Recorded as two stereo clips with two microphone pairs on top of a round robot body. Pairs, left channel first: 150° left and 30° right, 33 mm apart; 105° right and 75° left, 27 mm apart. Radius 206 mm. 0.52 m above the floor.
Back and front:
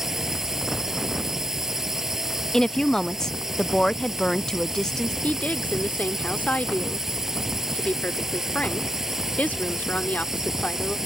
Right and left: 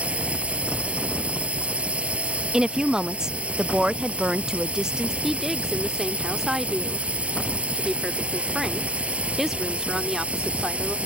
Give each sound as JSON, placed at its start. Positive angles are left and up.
{"t": 0.0, "sound": "a drone", "azimuth_deg": 50}
{"t": 2.5, "sound": "a woman speaking", "azimuth_deg": 120}
{"t": 5.2, "sound": "a woman speaking", "azimuth_deg": 155}